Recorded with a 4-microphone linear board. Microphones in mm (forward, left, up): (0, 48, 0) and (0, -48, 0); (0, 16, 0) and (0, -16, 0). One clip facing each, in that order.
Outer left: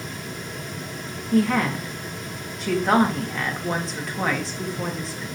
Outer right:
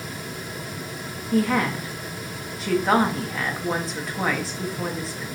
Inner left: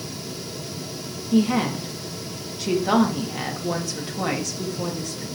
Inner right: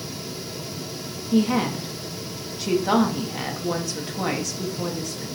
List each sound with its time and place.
1.3 s a woman speaking: centre (ahead or behind), 0.6 m